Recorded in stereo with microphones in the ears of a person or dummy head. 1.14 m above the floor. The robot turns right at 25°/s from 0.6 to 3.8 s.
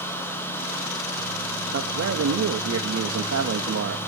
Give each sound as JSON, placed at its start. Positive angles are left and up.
{"t": 1.7, "sound": "a man speaking", "azimuth_deg": -120, "distance_m": 1.4}